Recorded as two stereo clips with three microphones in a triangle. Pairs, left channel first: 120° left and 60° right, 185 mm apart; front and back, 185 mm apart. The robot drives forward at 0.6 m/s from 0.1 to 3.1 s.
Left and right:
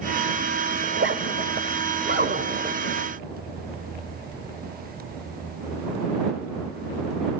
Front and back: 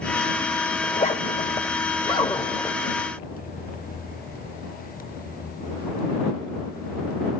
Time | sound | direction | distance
0.8 | a zipper | 50° right | 2.5 m